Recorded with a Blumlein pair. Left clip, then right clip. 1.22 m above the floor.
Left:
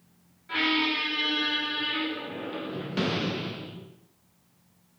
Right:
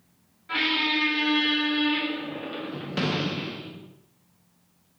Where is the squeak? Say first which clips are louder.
Right 1 dB; 10° right, 0.7 m.